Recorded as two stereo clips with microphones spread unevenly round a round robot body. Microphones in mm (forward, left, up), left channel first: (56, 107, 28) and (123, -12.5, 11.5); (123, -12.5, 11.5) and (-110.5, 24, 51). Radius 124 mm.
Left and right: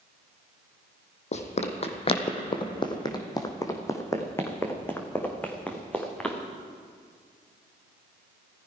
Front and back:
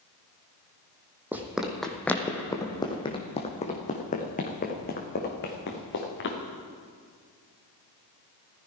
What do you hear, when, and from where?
1.3 s running footsteps: 95° left, 1.8 m; by 6.4 s 40° left, 3.5 m